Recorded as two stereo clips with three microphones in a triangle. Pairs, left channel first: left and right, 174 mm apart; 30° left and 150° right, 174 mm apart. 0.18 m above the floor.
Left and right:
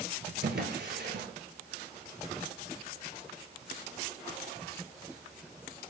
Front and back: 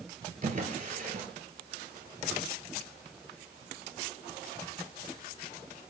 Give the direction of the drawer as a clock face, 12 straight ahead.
4 o'clock.